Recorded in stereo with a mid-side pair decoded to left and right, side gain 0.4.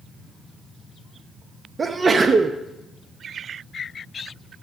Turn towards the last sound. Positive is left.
turn(degrees=-35)